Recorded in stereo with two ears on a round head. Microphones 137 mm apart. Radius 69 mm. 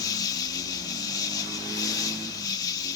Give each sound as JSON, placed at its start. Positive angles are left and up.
{"t": 0.0, "sound": "an insect", "side_deg": 25}